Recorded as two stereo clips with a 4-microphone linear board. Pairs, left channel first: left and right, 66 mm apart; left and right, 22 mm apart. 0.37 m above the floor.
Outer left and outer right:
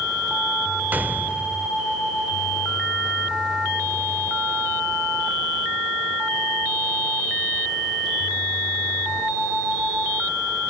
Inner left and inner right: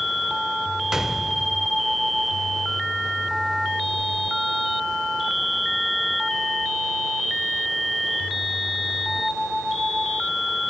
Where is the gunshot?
30° right (ahead or behind), 0.8 m.